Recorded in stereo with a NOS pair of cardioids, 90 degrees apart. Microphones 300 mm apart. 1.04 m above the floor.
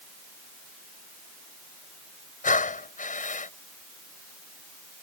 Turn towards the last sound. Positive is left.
turn(degrees=25)